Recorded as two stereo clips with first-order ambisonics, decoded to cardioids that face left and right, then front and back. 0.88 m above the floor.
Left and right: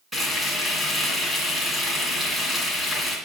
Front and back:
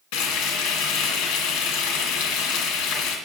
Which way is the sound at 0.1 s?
Straight ahead.